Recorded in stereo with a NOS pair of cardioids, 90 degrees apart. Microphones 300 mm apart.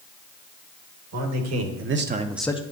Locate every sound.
1.1 s a man speaking: 65° right, 1.8 m; by 2.6 s 25° left, 0.7 m